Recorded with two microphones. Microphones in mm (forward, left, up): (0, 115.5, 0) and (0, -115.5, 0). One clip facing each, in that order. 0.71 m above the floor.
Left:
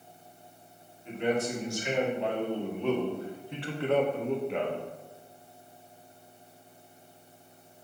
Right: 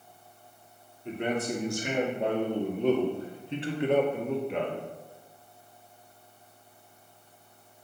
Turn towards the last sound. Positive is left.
turn(degrees=5)  # may be behind; listen again after turning